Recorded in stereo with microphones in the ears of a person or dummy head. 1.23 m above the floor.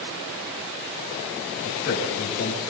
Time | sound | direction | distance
1.6 | a man speaking | 60° left (ahead or behind) | 8 m